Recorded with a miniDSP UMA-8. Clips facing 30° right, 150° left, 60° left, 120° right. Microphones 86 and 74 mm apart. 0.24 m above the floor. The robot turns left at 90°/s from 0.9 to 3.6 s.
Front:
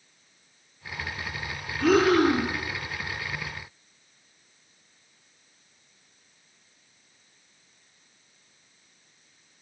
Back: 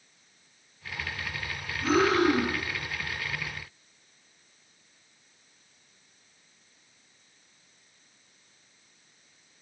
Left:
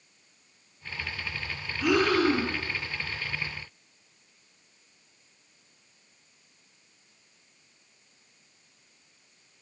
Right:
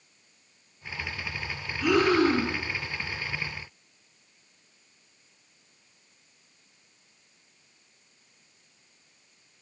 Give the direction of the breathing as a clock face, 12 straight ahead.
1 o'clock.